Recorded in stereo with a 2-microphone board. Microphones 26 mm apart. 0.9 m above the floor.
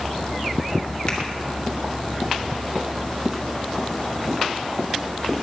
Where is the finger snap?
30° left (ahead or behind), 2 m.